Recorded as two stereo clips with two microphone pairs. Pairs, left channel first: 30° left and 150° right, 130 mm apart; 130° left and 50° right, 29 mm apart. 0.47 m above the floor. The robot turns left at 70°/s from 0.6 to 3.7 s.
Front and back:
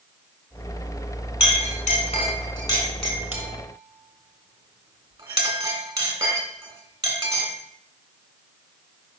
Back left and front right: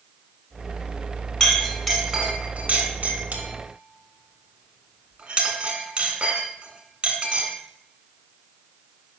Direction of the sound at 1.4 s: 55° left.